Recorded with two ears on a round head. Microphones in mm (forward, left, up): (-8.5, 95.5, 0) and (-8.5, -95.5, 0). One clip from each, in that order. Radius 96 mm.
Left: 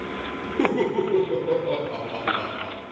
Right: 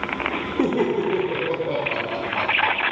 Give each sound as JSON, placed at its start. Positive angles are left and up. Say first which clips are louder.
{"t": 0.6, "sound": "laughter", "louder": "even", "side_deg": 0, "distance_m": 1.1}